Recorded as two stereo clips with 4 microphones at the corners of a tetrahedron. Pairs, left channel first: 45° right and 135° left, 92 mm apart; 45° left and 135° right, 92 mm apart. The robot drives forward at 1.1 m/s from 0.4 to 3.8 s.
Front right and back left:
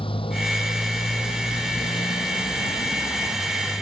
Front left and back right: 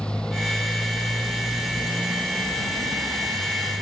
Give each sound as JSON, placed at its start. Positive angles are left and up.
{"t": 0.0, "sound": "a motorcycle", "azimuth_deg": -35}